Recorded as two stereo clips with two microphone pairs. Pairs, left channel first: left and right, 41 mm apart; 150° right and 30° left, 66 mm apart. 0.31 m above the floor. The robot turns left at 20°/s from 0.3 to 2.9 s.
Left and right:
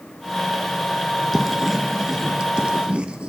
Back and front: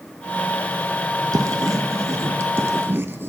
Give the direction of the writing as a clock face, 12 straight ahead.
12 o'clock.